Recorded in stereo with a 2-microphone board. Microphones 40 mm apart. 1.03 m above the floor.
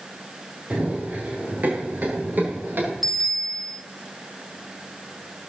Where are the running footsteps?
40° right (ahead or behind), 7.5 m; by 2.9 s 55° right (ahead or behind), 10.5 m.